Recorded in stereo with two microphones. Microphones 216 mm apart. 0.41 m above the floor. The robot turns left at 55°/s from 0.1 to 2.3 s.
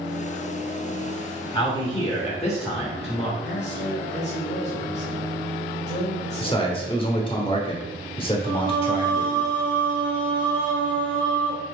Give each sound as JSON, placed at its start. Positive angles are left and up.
{"t": 1.5, "sound": "a man speaking", "side_deg": 20, "distance_m": 0.9}
{"t": 3.4, "sound": "a man speaking", "side_deg": 50, "distance_m": 1.5}
{"t": 6.4, "sound": "a man speaking", "side_deg": 25, "distance_m": 0.9}
{"t": 8.4, "sound": "singing", "side_deg": -50, "distance_m": 0.9}